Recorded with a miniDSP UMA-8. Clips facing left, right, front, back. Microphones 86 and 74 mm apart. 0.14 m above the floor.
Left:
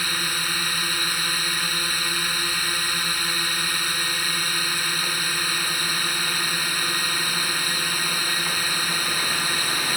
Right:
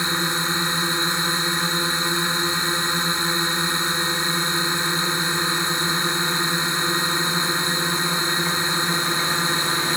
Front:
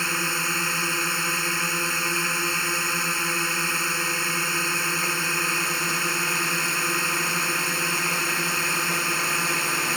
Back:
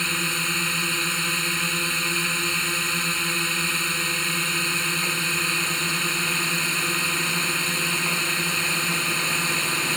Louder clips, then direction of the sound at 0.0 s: Right 5 dB, front 1 dB; 60° right.